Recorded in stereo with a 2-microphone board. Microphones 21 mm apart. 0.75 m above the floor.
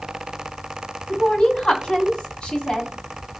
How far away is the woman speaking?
About 1.2 m.